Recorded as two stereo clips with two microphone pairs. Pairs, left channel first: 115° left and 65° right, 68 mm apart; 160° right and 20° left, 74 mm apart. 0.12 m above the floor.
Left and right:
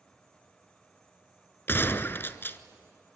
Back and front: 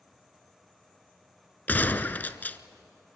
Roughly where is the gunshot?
Behind left.